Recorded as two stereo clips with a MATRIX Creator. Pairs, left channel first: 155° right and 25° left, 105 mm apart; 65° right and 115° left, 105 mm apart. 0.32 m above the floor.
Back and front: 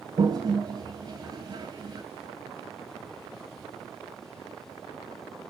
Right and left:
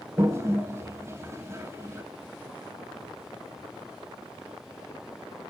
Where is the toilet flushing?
55° left, 2 m.